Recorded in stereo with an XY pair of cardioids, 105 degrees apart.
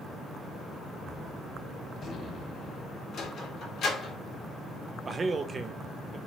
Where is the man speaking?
35° right, 0.6 m.